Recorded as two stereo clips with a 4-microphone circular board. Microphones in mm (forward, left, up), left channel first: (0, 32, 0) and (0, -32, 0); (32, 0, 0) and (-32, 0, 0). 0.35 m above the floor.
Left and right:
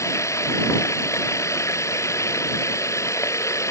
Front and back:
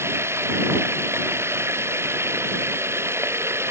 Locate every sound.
0.0 s running water: 130° left